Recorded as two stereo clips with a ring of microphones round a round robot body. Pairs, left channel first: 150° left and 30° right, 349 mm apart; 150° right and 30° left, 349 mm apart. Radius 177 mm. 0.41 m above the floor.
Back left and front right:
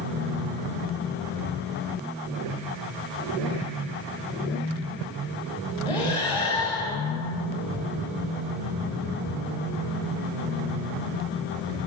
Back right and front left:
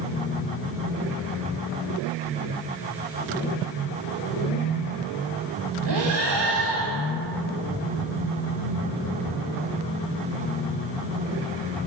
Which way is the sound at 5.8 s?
70° left.